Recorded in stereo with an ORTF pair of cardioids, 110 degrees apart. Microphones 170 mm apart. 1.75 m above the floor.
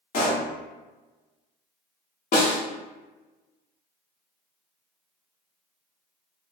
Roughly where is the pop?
Ahead left.